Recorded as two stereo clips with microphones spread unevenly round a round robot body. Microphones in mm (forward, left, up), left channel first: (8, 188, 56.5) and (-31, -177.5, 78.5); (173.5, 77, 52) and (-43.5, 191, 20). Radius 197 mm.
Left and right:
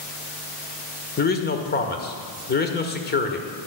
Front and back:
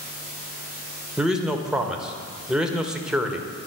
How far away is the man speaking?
About 1.4 m.